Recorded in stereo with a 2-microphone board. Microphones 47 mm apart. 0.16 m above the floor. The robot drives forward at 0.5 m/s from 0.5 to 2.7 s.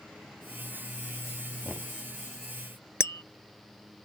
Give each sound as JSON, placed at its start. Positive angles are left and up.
{"t": 1.6, "sound": "knocking", "side_deg": -40}
{"t": 3.0, "sound": "tapping", "side_deg": 65}